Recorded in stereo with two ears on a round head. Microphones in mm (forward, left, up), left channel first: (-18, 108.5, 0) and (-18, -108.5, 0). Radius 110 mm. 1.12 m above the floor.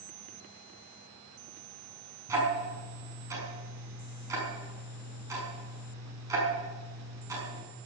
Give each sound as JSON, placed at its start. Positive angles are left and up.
{"t": 2.3, "sound": "ticking", "side_deg": -15, "distance_m": 5.5}